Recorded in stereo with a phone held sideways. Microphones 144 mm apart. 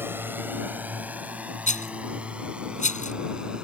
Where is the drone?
15° right (ahead or behind); by 3.6 s 5° right (ahead or behind).